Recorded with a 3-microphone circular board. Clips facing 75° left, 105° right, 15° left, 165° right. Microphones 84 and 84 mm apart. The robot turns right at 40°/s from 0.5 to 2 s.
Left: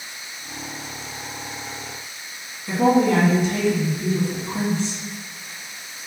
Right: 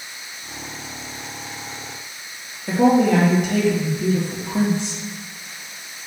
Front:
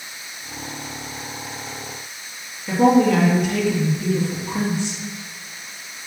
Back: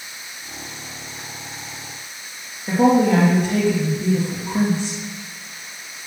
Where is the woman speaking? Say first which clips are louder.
Right 2 dB, even; 120° right, 3.5 m.